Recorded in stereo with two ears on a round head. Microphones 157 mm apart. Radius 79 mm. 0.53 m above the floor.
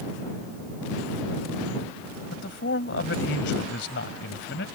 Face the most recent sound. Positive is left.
turn(degrees=70)  # may be behind; listen again after turning